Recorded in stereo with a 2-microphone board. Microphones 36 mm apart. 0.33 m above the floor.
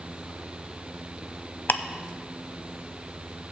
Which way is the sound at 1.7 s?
75° left (ahead or behind).